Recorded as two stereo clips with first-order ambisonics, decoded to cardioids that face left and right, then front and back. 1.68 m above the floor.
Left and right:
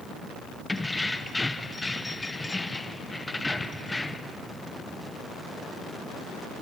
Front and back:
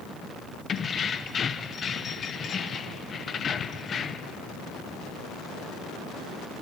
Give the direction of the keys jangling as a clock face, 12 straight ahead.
11 o'clock.